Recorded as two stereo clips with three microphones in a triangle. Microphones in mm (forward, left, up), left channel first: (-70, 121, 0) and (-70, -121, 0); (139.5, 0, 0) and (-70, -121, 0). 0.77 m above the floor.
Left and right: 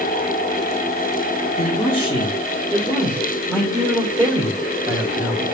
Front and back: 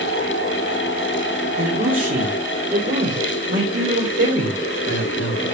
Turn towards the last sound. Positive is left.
turn(degrees=-175)